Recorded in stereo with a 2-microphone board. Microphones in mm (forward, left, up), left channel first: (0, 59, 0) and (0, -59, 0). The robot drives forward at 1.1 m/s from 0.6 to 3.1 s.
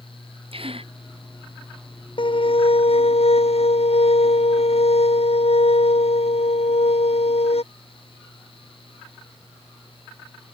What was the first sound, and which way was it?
A gasp, 55° right (ahead or behind).